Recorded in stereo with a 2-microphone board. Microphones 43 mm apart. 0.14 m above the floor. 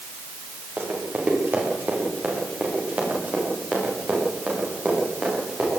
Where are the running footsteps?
55° right (ahead or behind), 9.5 m; by 5.7 s 35° right (ahead or behind), 15 m.